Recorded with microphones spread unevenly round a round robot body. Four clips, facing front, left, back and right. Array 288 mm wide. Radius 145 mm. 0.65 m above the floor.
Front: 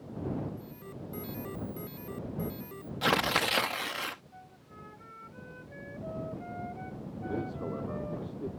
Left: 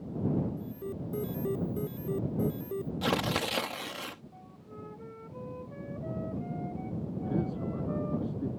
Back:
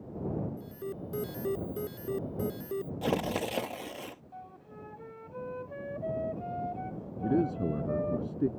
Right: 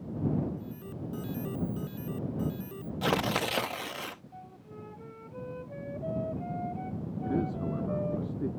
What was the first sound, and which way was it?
An alarm, 140° left.